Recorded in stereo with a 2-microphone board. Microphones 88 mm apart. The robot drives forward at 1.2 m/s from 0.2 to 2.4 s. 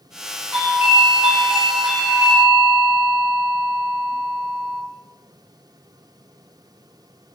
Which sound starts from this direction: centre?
A doorbell, at 0.5 s.